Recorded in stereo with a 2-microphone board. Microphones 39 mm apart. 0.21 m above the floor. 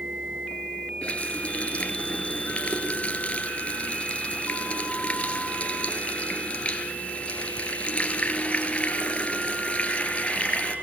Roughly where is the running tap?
Left.